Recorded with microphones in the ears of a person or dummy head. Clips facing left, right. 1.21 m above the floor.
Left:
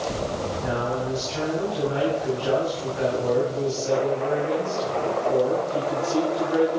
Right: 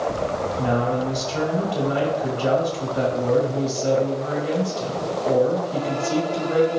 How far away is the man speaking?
About 2.5 m.